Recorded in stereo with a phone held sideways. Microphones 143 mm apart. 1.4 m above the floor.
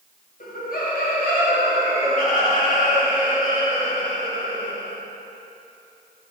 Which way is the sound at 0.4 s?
90° left.